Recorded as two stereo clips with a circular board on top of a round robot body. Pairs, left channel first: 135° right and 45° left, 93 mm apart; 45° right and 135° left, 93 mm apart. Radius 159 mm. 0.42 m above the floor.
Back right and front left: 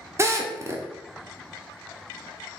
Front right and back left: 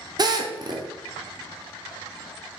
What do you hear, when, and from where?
0.2 s a drill: 100° left, 1.2 m